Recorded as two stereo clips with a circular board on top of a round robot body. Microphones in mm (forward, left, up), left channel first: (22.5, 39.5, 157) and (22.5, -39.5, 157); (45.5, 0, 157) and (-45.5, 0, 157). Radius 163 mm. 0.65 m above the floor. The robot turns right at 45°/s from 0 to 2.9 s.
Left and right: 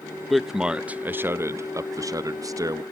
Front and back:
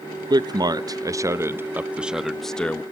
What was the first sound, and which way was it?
A man speaking, straight behind.